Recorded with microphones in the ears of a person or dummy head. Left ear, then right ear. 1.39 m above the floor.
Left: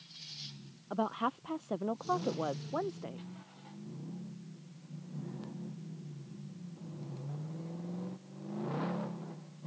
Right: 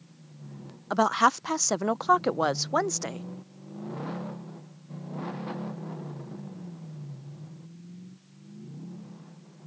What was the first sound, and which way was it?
A woman speaking, 60° right (ahead or behind).